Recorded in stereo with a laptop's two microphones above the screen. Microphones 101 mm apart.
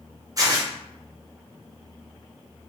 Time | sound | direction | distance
0.4 | tearing paper | 35° right (ahead or behind) | 0.5 m